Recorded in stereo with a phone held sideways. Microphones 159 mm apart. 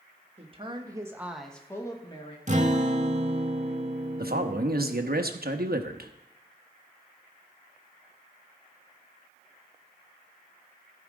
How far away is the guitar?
About 0.9 m.